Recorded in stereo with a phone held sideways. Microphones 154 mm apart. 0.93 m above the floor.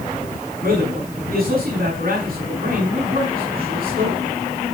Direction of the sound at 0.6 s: 70° right (ahead or behind).